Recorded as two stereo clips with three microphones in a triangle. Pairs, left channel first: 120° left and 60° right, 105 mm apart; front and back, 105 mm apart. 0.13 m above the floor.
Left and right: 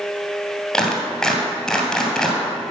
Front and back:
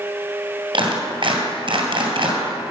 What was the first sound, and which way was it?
A clap, 155° right.